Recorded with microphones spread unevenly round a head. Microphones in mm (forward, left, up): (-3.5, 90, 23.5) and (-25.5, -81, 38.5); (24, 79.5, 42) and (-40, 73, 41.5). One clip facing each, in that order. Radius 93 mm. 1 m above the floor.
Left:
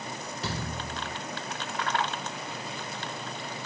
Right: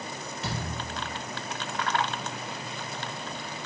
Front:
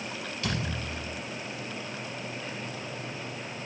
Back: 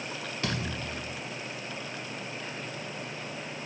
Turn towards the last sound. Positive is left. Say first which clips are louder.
# even, even
turn(degrees=135)